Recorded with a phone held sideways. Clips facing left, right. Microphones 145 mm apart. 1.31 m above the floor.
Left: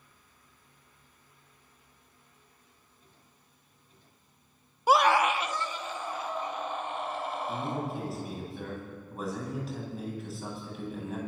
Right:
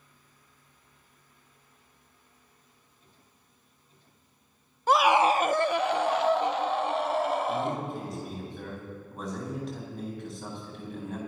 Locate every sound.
4.9 s a scream: 10° left (ahead or behind), 0.5 m; by 7.9 s 80° right, 2.5 m
7.5 s a man speaking: centre (ahead or behind), 10 m